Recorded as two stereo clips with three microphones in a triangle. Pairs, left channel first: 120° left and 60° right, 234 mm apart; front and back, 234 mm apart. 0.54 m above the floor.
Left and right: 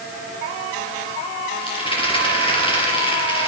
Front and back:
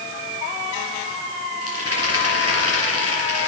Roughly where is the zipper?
I don't hear a zipper.